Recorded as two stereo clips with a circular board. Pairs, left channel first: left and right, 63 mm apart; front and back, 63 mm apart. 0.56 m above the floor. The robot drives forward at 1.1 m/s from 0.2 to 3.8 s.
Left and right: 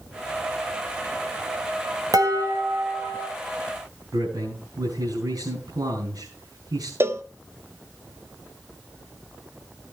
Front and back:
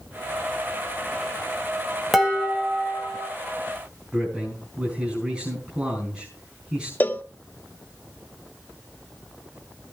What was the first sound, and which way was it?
Dishes clattering, 90° right.